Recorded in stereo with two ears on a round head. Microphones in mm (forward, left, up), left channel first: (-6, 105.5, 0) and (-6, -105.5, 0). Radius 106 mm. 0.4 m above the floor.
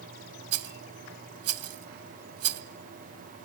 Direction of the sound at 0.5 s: 65° right (ahead or behind).